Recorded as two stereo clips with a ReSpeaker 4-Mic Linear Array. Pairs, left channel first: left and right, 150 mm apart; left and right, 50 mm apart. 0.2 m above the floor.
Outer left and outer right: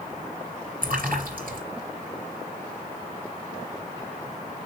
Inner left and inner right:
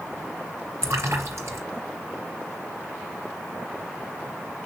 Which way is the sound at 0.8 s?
70° right (ahead or behind).